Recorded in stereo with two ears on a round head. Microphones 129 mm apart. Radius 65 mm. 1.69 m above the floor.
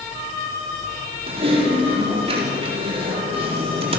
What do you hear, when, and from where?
1.3 s typing on a keyboard: 40° right (ahead or behind), 4 m